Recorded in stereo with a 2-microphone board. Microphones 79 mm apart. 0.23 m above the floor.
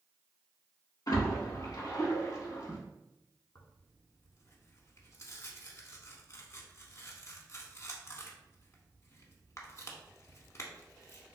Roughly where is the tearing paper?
Left.